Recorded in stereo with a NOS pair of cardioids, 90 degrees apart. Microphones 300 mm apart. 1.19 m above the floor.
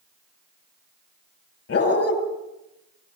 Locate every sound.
1.7 s a dog barking: 50° left, 8 m